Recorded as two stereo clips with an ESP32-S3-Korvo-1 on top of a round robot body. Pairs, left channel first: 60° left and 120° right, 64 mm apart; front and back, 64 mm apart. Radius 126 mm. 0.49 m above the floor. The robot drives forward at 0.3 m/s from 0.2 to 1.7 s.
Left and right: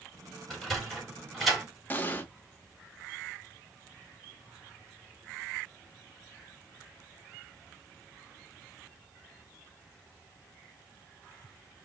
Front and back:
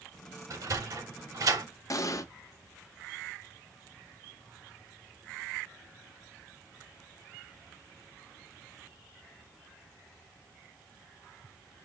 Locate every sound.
0.5 s a sliding door: 150° left, 3.5 m
1.9 s an explosion: 5° left, 0.9 m